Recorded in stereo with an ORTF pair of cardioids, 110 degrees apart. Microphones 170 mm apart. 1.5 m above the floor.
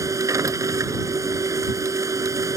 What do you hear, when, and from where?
0.0 s a machine running: 20° right